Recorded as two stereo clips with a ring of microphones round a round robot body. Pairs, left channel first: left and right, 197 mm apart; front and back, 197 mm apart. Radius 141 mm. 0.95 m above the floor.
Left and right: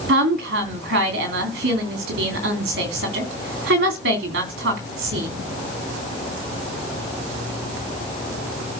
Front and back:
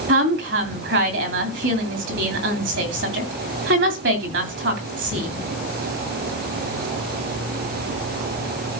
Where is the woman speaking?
140° right, 2.5 m.